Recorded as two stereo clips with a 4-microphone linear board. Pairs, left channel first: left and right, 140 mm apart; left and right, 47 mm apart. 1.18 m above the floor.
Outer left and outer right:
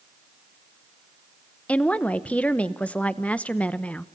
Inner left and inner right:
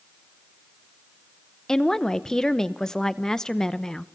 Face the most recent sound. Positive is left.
turn(degrees=10)  # may be behind; listen again after turning